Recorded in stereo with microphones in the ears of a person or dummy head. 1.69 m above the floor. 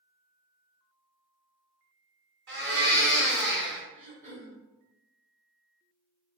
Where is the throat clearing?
50° right (ahead or behind), 1.2 m.